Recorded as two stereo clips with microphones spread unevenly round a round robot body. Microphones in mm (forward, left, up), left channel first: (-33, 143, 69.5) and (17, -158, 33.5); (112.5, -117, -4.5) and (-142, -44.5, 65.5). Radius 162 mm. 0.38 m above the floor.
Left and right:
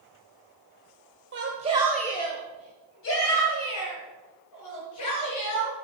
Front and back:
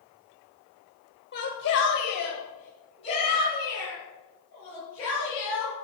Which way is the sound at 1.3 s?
40° right.